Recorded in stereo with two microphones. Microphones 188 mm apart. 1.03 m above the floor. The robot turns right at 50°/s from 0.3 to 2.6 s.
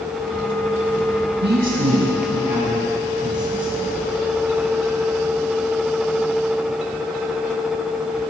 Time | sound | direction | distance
1.4 | a man speaking | 105° right | 7.5 m